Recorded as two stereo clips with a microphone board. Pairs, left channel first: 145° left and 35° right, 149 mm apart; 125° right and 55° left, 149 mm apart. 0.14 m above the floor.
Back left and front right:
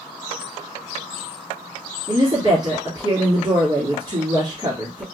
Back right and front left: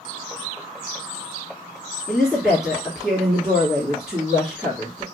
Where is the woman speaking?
25° right, 1.8 m.